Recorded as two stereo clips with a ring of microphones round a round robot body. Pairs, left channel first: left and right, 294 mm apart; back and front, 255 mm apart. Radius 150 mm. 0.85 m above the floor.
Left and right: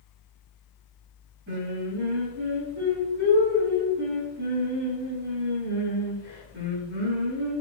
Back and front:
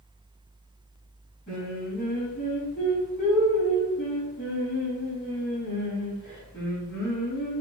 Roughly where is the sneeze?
I don't hear a sneeze.